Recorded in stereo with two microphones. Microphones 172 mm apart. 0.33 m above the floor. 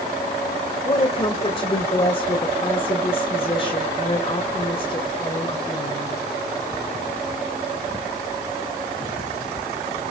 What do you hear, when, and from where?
0.8 s a woman speaking: 35° left (ahead or behind), 1.6 m